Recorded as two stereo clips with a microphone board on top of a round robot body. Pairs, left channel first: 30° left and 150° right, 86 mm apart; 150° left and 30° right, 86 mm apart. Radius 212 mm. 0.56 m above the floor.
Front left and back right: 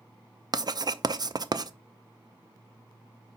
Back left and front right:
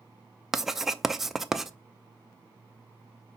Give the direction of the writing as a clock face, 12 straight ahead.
4 o'clock.